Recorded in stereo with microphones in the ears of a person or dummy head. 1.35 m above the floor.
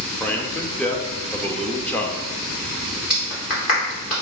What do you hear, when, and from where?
0.2 s a man speaking: 10° left (ahead or behind), 0.8 m
3.1 s a clap: 45° left (ahead or behind), 3 m